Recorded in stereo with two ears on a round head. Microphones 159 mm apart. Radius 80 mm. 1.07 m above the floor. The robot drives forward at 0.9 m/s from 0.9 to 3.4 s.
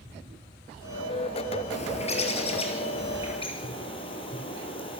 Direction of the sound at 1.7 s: 40° left (ahead or behind).